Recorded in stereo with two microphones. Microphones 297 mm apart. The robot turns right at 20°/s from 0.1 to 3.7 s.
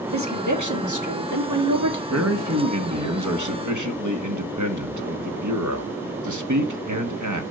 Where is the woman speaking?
115° right, 1.6 m; by 2.0 s 80° right, 1.6 m.